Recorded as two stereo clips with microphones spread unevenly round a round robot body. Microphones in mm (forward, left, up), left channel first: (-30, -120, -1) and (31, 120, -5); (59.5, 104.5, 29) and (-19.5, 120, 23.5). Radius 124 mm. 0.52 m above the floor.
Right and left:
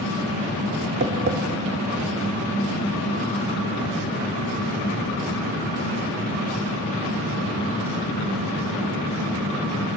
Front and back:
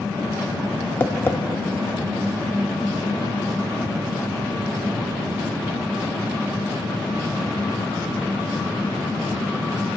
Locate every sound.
1.0 s tapping: 50° left, 1.0 m